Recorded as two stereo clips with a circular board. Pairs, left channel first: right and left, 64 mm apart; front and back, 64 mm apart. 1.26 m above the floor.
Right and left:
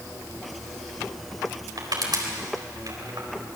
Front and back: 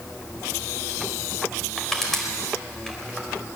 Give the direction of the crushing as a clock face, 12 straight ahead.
9 o'clock.